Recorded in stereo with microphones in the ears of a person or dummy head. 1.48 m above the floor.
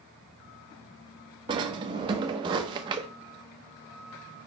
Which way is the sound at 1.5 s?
25° right (ahead or behind).